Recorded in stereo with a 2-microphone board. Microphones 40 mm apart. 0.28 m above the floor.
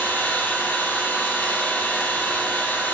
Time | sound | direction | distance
0.0 | an engine running | 75° left (ahead or behind) | 6 m